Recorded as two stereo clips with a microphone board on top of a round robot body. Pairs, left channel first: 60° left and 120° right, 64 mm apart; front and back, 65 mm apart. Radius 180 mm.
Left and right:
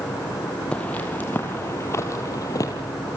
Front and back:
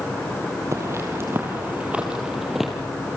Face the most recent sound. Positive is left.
turn(degrees=90)